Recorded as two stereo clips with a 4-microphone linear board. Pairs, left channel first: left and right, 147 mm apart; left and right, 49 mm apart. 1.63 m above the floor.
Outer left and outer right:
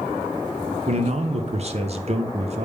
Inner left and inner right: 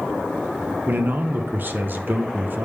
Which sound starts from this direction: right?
A man speaking, at 0.9 s.